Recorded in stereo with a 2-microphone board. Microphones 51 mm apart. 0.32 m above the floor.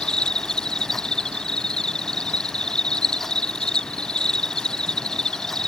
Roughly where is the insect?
Centre.